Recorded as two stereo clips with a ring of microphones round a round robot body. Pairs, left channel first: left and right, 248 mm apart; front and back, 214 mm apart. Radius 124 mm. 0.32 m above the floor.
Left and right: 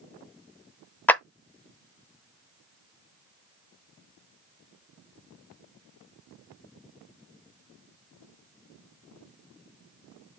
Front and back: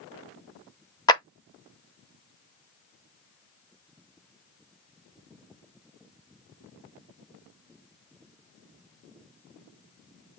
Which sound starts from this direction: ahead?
A clap, at 1.1 s.